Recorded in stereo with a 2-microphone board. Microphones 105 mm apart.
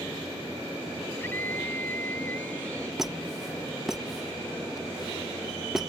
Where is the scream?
20° left (ahead or behind); by 2.9 s 15° left (ahead or behind).